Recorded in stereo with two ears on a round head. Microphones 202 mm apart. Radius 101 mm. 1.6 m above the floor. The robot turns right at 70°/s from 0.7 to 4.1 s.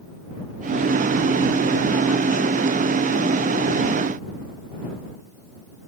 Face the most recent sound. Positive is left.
No sound to turn to.